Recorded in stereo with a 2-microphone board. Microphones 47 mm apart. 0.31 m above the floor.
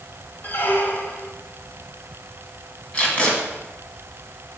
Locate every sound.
0.4 s a squeak: 40° left (ahead or behind), 1.1 m
2.9 s tape being pulled: 30° left (ahead or behind), 2 m